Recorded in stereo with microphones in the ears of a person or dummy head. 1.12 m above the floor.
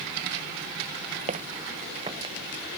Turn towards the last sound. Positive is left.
turn(degrees=-20)  # may be behind; listen again after turning